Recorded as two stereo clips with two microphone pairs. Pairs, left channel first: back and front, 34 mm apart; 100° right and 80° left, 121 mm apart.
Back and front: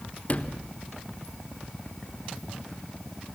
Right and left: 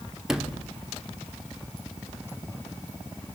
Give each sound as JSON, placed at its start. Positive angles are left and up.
{"t": 0.3, "sound": "a sliding door", "azimuth_deg": 160, "distance_m": 1.3}